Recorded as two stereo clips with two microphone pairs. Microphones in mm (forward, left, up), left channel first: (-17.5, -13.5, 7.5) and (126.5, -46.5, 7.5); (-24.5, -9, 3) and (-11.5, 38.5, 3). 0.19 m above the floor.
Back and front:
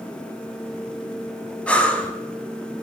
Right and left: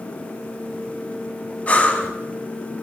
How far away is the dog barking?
I don't hear a dog barking.